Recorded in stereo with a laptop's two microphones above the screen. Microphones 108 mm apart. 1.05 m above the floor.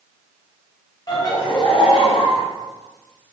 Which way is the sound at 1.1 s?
35° left (ahead or behind).